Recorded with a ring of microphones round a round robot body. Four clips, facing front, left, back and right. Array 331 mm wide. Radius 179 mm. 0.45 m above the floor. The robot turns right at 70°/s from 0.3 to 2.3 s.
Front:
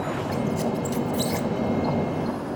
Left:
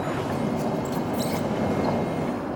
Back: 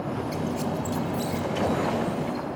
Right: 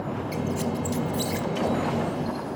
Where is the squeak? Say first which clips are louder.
Even, front 4 dB; 85° right, 1.4 m; by 1.5 s 5° right, 1.4 m.